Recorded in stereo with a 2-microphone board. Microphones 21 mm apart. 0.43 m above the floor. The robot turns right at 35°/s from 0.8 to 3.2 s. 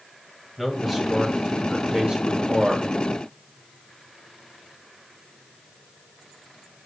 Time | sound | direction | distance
0.6 | a man speaking | 170° right | 2.5 m